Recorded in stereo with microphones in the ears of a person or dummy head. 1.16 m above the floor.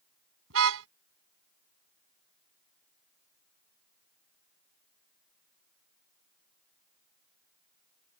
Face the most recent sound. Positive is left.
turn(degrees=-80)